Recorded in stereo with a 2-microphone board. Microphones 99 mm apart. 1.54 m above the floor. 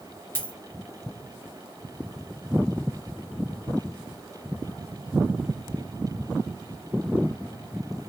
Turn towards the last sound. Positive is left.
turn(degrees=20)  # may be behind; listen again after turning